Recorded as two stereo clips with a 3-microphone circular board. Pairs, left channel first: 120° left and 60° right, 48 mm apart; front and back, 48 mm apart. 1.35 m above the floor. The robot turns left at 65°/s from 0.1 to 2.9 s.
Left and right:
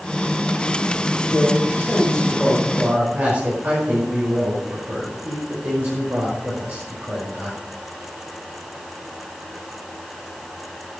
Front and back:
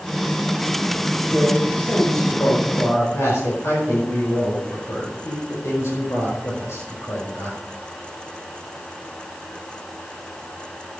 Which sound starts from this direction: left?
A man speaking, at 1.2 s.